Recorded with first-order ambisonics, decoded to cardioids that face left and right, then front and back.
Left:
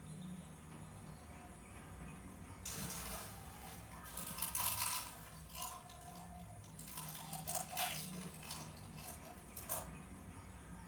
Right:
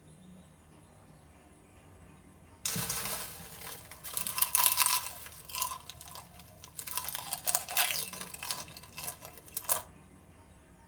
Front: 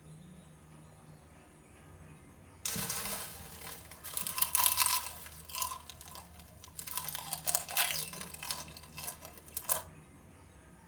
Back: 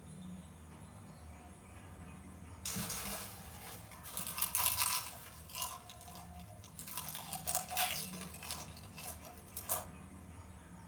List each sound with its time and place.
0.0 s an insect: 110° left, 1.7 m
2.6 s chewing: 65° right, 0.9 m